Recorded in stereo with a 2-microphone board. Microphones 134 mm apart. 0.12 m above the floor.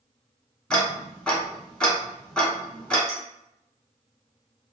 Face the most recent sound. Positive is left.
turn(degrees=-50)  # may be behind; listen again after turning